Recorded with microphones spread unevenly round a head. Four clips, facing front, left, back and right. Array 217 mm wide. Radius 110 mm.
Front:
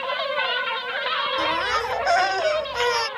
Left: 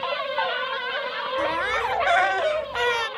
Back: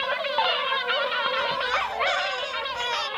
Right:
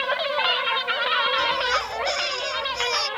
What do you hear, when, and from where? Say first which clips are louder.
1.4 s a baby crying: even, front 2 dB; 30° left